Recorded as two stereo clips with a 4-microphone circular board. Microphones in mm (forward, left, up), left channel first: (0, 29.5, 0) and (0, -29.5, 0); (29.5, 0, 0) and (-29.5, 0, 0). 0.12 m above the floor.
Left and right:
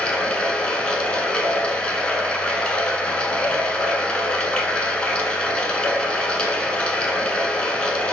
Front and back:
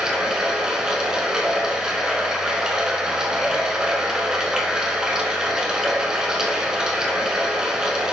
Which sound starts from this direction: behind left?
Running water, at 0.0 s.